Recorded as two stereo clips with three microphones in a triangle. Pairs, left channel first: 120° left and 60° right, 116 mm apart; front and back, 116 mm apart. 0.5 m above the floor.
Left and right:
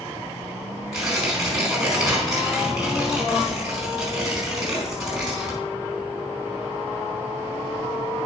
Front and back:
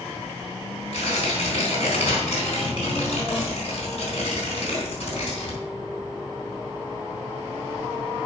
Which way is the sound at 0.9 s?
25° left.